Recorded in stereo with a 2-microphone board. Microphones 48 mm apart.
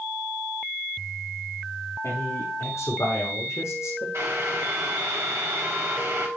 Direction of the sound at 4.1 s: 70° right (ahead or behind).